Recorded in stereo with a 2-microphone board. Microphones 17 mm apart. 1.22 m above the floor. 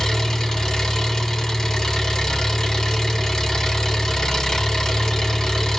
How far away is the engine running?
About 2.5 m.